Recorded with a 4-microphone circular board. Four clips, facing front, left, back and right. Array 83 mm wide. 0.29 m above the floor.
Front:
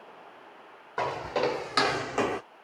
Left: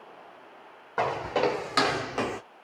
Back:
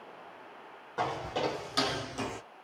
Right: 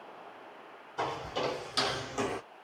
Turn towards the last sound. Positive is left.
turn(degrees=0)